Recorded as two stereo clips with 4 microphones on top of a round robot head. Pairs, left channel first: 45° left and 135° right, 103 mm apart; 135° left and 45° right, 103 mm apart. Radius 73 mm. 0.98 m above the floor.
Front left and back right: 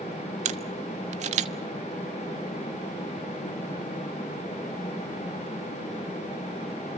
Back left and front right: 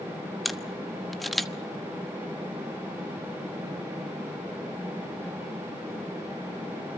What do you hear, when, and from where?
0.5 s a camera shutter: 135° right, 1.1 m